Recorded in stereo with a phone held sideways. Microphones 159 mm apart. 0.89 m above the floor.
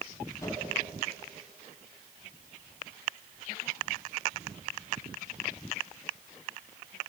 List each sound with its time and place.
0.4 s a whoosh: 20° left (ahead or behind), 6 m